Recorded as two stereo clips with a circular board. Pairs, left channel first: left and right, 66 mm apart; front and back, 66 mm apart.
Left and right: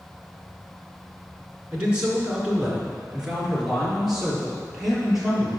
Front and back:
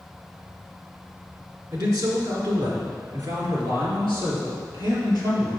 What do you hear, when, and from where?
1.7 s a man speaking: 160° right, 2.5 m; by 5.6 s 175° right, 5 m